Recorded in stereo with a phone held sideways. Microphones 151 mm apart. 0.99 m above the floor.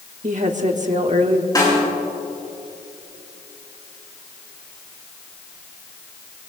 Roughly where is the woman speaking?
Right.